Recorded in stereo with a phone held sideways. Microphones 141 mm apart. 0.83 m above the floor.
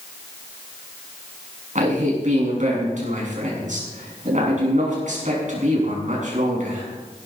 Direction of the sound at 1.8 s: 60° right (ahead or behind).